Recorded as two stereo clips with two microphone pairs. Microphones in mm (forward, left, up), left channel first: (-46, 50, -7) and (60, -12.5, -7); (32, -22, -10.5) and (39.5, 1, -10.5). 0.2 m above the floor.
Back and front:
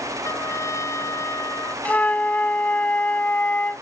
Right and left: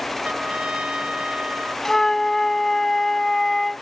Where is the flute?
150° right.